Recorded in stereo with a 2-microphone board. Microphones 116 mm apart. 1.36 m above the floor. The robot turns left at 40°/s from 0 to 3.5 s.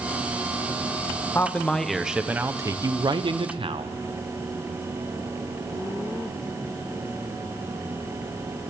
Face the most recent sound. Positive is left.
turn(degrees=-65)